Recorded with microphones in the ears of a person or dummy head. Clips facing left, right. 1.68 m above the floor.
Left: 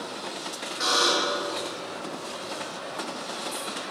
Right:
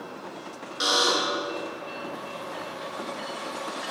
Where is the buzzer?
40° right (ahead or behind), 3.5 m.